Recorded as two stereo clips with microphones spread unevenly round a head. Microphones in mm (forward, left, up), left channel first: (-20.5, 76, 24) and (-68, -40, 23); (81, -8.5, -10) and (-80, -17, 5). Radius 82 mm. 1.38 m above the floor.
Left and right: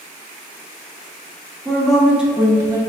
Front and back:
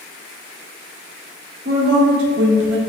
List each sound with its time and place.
1.6 s a woman speaking: 150° left, 1.2 m; by 2.8 s 175° right, 0.8 m